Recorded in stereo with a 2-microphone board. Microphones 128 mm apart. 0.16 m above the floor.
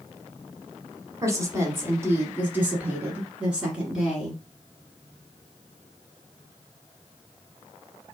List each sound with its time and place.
1.2 s a woman speaking: 20° right (ahead or behind), 1.1 m; by 4.4 s 5° right (ahead or behind), 2 m